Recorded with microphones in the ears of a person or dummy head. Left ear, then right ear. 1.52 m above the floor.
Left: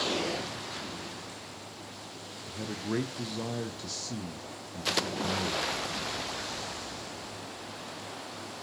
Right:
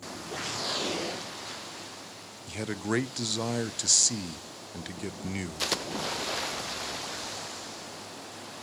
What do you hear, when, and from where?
2.5 s a man speaking: 55° right (ahead or behind), 0.5 m